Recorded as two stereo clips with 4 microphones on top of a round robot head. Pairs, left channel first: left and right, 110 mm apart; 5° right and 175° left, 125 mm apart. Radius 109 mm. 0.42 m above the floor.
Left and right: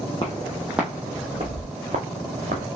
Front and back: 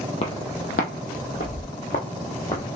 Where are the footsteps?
25° left, 0.7 m; by 2.6 s 65° right, 1.2 m.